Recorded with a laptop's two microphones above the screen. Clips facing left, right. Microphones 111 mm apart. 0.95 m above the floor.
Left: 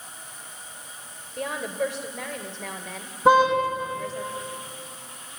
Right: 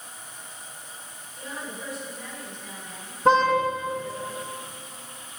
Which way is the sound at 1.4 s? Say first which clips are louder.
Left 10 dB; 80° left.